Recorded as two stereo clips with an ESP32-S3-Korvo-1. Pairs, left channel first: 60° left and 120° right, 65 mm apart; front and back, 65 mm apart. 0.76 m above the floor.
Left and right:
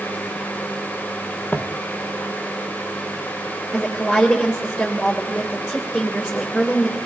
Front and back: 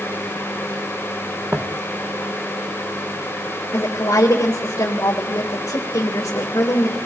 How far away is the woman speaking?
About 3 m.